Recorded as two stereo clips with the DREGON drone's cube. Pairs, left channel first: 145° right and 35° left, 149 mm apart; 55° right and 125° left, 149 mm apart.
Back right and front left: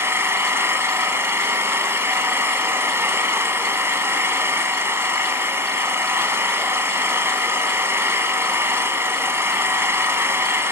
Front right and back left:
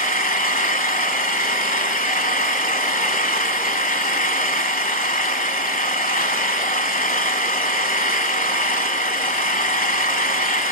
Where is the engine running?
40° right, 1.4 m.